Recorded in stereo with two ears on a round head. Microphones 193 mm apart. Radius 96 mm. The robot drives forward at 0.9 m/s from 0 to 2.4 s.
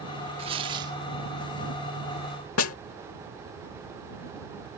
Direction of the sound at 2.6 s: 75° left (ahead or behind).